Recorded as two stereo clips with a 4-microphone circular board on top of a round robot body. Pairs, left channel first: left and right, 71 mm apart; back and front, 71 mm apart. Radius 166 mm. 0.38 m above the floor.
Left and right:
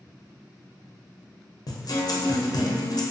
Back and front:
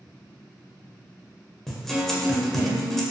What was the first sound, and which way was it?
A guitar, 95° left.